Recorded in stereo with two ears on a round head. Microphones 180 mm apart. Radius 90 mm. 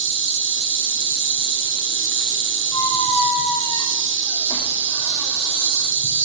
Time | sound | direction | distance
0.0 | an insect | 60° right (ahead or behind) | 1.0 m
2.7 | a squeak | 15° left (ahead or behind) | 0.7 m